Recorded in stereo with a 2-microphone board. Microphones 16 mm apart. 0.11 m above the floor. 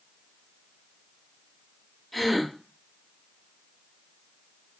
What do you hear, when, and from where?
2.1 s a gasp: centre (ahead or behind), 1.7 m